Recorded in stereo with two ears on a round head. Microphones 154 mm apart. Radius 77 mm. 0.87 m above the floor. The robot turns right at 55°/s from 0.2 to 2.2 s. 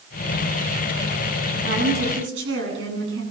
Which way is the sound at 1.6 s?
130° right.